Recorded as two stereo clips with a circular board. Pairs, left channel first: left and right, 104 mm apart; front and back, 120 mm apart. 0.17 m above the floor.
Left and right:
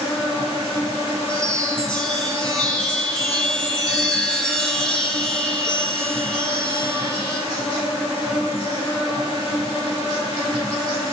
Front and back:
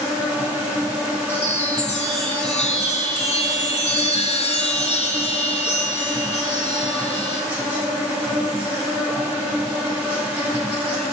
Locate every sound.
0.0 s an insect: 100° left, 3.5 m
1.3 s a chime: 10° left, 1.5 m